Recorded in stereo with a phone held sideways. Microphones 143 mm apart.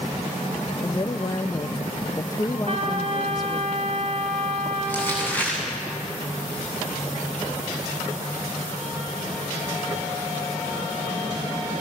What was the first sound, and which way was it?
A woman speaking, 25° left (ahead or behind).